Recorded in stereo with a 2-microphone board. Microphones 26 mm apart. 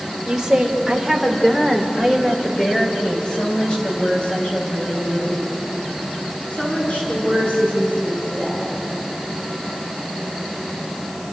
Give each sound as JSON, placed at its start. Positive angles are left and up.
{"t": 0.2, "sound": "a woman speaking", "side_deg": -15, "distance_m": 3.0}